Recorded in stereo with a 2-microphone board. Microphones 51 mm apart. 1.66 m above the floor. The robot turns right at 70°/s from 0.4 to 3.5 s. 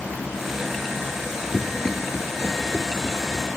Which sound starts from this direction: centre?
Running footsteps, at 1.5 s.